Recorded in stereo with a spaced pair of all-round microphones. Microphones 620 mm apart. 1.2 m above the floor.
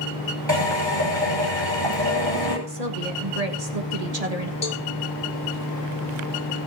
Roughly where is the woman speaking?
Right.